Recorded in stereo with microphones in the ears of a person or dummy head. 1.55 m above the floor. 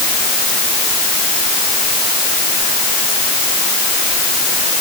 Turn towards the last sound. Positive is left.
No sound to turn to.